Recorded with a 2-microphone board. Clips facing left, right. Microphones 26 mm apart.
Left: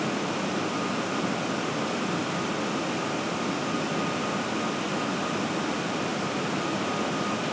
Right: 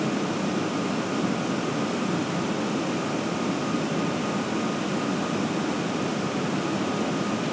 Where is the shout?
No shout in this recording.